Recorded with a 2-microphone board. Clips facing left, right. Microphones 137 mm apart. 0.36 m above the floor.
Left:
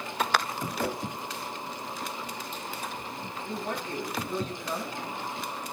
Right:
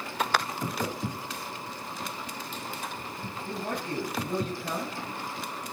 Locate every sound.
0.8 s a whoosh: 65° left (ahead or behind), 1.0 m
3.4 s a man speaking: 45° right (ahead or behind), 5.5 m